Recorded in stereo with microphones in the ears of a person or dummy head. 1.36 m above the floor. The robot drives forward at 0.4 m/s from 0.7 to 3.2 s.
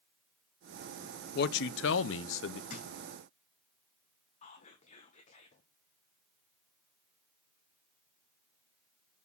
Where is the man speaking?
55° left (ahead or behind), 0.7 m; by 2.6 s 60° left (ahead or behind), 0.7 m.